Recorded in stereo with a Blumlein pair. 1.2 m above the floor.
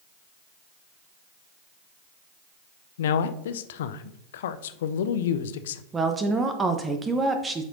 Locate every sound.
3.0 s a man speaking: 60° left, 0.5 m
5.9 s a woman speaking: 15° right, 0.8 m